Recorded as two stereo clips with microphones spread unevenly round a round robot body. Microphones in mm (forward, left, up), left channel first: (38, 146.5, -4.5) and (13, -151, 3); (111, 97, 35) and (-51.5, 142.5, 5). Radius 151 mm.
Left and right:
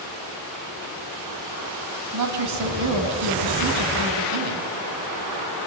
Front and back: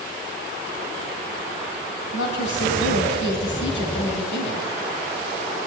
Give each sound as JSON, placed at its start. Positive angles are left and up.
{"t": 2.1, "sound": "a woman speaking", "azimuth_deg": -60, "distance_m": 2.5}